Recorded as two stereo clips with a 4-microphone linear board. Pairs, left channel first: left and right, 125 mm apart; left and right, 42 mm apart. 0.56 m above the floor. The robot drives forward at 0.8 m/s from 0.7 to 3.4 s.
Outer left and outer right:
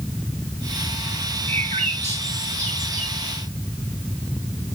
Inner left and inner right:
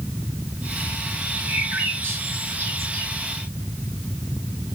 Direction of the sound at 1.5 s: 55° right (ahead or behind).